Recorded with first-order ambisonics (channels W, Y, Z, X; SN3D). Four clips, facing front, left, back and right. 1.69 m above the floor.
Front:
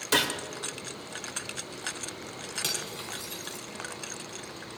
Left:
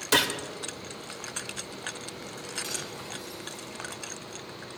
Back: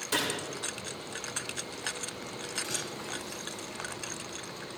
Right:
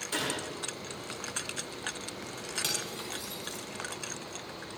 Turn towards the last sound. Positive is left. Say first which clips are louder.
# right 2 dB, front 3 dB
turn(degrees=-35)